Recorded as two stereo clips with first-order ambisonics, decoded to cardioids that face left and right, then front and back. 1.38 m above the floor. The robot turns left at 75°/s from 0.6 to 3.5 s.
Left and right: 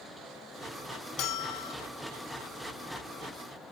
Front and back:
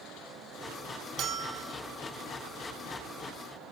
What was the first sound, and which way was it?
A bell, 130° left.